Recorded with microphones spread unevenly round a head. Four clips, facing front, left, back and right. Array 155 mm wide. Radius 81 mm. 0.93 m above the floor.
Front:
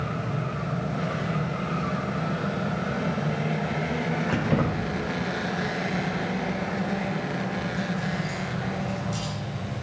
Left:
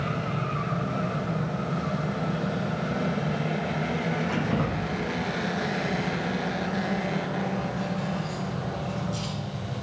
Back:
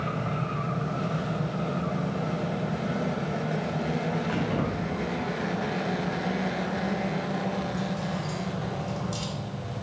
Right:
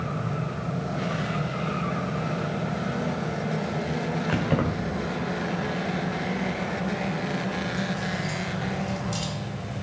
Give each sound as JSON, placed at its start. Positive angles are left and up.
{"t": 4.3, "sound": "keys jangling", "azimuth_deg": -55, "distance_m": 2.0}